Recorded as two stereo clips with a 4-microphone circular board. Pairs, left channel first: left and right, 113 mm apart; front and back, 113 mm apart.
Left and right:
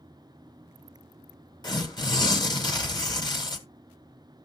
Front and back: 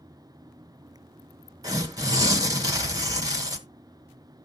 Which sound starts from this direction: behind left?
Tearing paper, at 1.6 s.